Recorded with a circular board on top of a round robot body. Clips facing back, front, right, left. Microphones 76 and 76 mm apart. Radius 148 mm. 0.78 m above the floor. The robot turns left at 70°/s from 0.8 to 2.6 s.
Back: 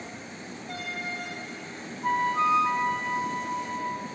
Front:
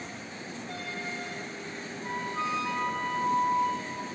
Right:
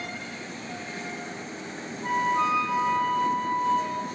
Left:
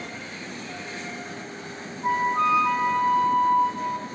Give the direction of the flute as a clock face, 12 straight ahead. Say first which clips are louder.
Back 9 dB, left 2 dB; 7 o'clock.